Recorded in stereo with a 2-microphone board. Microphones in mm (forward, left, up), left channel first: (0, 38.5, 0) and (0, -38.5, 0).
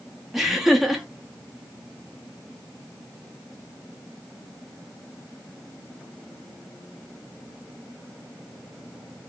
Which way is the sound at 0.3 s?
5° right (ahead or behind).